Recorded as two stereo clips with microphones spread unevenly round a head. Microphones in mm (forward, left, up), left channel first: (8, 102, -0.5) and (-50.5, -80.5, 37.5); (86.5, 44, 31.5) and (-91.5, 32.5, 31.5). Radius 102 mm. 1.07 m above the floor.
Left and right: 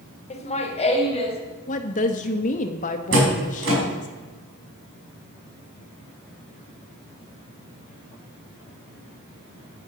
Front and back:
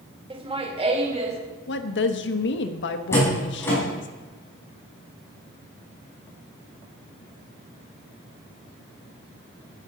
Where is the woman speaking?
20° left, 1.2 m.